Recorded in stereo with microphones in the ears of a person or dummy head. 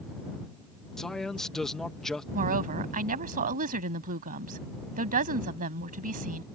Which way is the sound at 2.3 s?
40° right (ahead or behind).